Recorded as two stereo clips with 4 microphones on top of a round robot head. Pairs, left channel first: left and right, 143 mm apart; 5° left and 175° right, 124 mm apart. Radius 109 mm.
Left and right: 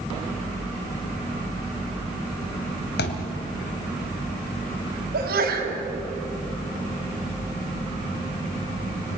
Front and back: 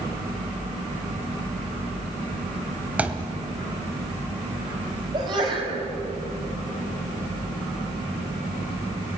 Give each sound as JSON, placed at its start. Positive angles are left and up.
{"t": 3.0, "sound": "a thud", "azimuth_deg": 105, "distance_m": 2.0}
{"t": 5.1, "sound": "a sneeze", "azimuth_deg": -115, "distance_m": 5.5}